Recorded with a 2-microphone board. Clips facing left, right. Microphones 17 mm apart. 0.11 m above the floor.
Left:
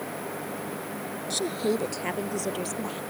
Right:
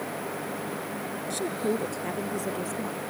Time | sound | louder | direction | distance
1.3 | a woman speaking | left 2 dB | 35° left (ahead or behind) | ?